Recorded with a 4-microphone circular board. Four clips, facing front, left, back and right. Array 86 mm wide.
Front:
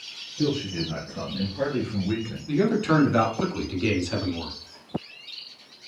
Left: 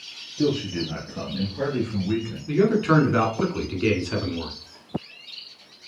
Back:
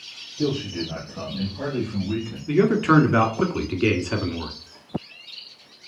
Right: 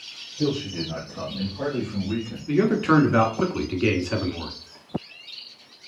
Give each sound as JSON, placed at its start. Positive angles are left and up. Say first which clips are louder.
{"t": 0.4, "sound": "a man speaking", "louder": "left 2 dB, back 1 dB", "azimuth_deg": 80, "distance_m": 2.0}
{"t": 2.5, "sound": "a man speaking", "louder": "even, back 4 dB", "azimuth_deg": -165, "distance_m": 1.1}